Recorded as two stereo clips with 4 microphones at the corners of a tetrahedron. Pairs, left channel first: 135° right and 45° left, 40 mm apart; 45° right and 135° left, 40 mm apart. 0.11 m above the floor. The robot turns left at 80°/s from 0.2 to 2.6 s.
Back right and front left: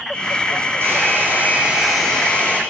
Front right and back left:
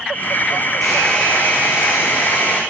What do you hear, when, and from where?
0.8 s a hair dryer: 50° left, 4.5 m; by 2.6 s 90° right, 4.5 m